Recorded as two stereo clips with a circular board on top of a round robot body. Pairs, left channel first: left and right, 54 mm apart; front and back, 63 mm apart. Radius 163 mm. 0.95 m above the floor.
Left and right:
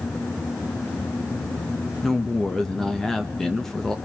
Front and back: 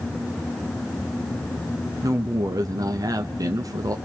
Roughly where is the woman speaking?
Behind.